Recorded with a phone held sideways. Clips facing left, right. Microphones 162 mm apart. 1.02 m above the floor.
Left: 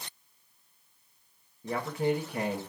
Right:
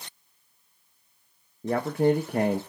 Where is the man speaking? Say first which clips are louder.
Right 7 dB; 55° right (ahead or behind), 0.9 m.